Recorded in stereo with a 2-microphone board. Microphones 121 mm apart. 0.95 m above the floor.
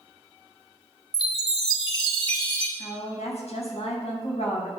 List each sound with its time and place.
1.1 s a chime: 40° left (ahead or behind), 3 m
2.8 s a woman speaking: 70° left (ahead or behind), 5.5 m